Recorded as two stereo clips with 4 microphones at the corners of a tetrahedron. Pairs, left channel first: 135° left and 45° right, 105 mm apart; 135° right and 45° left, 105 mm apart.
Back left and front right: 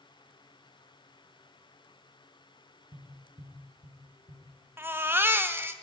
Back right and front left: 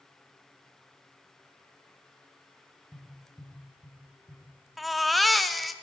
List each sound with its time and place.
2.9 s tapping: 15° right, 6 m
4.8 s a baby crying: 45° right, 0.7 m